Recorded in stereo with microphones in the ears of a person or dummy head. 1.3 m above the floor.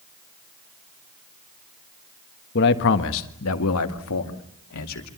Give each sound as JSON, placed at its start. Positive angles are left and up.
{"t": 2.5, "sound": "a man speaking", "side_deg": 55, "distance_m": 1.5}